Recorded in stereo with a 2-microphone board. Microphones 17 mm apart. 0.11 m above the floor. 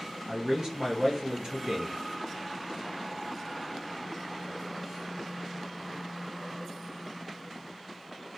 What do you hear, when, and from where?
0.3 s a man speaking: 45° right (ahead or behind), 2 m